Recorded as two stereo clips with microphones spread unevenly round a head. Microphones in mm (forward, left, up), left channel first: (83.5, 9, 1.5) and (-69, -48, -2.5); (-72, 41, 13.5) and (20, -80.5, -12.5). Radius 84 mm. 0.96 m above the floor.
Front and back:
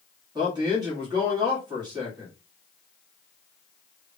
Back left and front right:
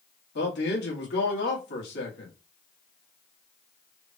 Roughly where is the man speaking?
Behind left.